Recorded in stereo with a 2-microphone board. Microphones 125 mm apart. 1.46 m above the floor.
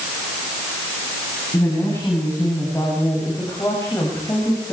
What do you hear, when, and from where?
1.5 s a woman speaking: 25° left (ahead or behind), 9.5 m